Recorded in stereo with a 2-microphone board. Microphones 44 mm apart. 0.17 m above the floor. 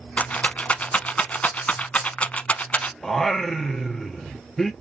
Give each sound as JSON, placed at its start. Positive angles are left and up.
{"t": 0.2, "sound": "a rattle", "side_deg": 30, "distance_m": 0.6}
{"t": 3.0, "sound": "singing", "side_deg": 5, "distance_m": 0.6}